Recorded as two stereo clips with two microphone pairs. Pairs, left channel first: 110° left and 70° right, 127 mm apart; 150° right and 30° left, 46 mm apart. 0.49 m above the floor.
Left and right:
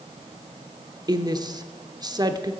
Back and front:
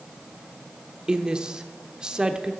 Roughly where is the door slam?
No door slam in this recording.